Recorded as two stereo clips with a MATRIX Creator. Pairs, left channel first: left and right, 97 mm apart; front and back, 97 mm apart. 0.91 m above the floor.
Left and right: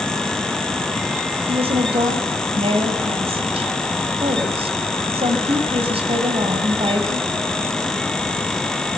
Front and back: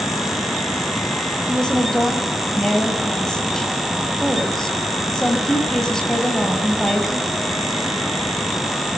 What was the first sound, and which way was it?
A woman speaking, 85° right.